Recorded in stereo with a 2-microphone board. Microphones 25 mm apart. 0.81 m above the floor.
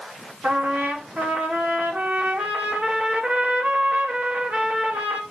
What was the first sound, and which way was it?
A trumpet, 80° right.